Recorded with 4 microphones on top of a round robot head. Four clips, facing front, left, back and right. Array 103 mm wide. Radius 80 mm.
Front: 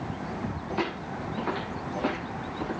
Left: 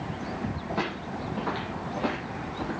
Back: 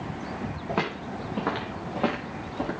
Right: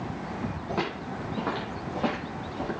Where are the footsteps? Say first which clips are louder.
Right 1 dB, back 2 dB; 175° right, 6 m; by 2.7 s 170° right, 8 m.